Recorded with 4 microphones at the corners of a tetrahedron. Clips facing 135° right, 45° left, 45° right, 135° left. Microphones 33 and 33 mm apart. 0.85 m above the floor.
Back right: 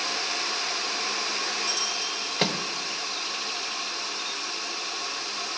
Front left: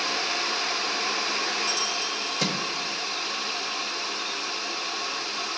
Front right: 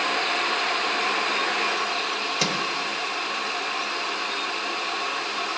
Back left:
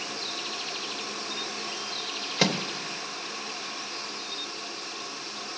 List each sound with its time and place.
2.4 s a microwave: 155° right, 0.9 m